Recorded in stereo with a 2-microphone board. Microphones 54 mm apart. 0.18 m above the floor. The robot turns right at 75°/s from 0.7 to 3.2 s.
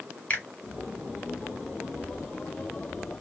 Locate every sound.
0.3 s a finger snap: 30° left (ahead or behind), 1.4 m